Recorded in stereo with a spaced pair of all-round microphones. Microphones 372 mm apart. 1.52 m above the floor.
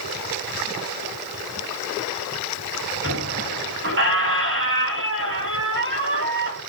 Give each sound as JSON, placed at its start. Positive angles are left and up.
{"t": 3.0, "sound": "a squeak", "side_deg": -35, "distance_m": 1.5}